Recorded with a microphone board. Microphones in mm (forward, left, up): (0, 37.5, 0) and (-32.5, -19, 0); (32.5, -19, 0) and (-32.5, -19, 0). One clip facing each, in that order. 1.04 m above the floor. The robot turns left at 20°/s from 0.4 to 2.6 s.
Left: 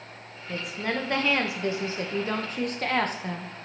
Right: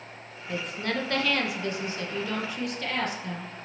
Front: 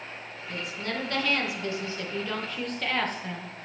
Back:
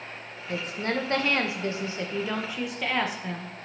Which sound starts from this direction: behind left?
A woman speaking, at 0.5 s.